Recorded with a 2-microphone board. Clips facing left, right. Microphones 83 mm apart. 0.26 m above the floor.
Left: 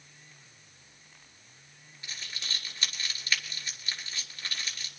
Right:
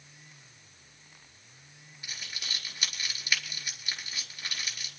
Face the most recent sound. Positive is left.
turn(degrees=-15)  # may be behind; listen again after turning